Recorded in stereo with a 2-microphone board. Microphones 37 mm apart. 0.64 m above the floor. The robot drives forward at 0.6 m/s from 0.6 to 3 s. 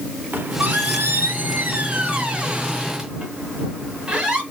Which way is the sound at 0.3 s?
55° right (ahead or behind).